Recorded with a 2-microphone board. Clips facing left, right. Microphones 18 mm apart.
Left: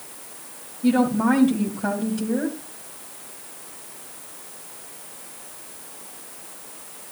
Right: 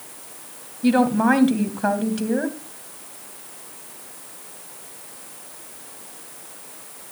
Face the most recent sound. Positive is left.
turn(degrees=-30)  # may be behind; listen again after turning